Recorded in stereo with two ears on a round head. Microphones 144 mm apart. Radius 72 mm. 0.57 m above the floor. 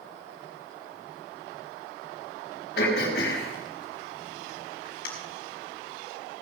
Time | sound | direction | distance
2.8 | throat clearing | 65° left (ahead or behind) | 4 m